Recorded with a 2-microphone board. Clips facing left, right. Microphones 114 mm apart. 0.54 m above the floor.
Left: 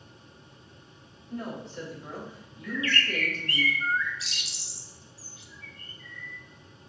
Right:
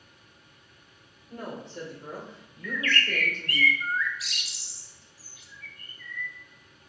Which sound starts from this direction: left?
A bird, at 2.6 s.